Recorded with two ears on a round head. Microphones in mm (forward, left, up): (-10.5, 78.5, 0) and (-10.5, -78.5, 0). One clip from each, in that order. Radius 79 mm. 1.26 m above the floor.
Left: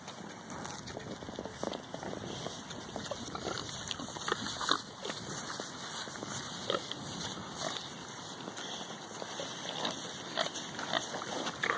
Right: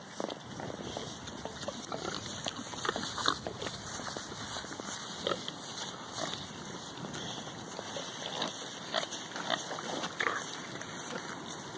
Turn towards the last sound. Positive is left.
turn(degrees=-75)  # may be behind; listen again after turning